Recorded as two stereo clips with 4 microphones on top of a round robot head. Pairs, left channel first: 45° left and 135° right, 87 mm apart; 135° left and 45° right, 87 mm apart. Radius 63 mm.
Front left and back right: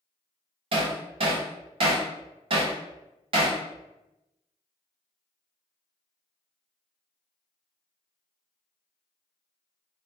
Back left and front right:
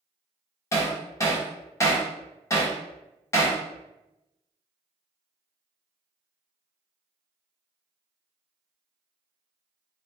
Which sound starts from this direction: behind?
Hammering, at 0.7 s.